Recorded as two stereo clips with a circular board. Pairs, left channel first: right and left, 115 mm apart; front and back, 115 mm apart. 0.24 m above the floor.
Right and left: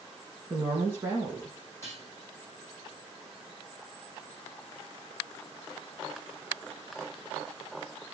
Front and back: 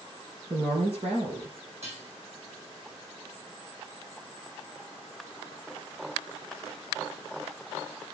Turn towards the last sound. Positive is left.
turn(degrees=-155)